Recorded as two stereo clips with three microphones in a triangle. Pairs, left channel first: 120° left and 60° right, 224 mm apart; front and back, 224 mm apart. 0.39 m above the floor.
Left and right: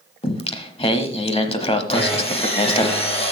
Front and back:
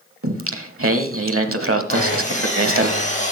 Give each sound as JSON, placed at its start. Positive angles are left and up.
{"t": 0.2, "sound": "singing", "azimuth_deg": 180, "distance_m": 0.9}
{"t": 1.9, "sound": "sawing", "azimuth_deg": 55, "distance_m": 2.5}